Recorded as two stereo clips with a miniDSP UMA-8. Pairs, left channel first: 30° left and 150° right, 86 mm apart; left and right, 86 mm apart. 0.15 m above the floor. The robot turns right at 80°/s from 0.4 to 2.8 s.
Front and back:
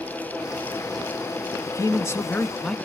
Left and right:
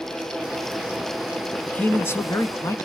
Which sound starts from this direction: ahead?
A man speaking, at 1.7 s.